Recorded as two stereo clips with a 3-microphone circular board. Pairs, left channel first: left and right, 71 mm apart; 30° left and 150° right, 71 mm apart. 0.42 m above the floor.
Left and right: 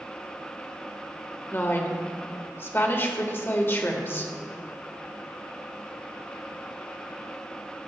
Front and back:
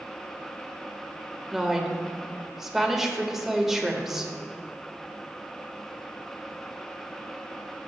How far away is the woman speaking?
About 1.4 m.